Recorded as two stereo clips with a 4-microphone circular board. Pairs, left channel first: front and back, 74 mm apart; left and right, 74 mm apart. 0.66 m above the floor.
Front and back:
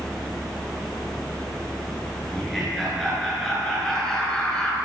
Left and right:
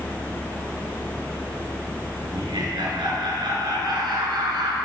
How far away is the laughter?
About 10 m.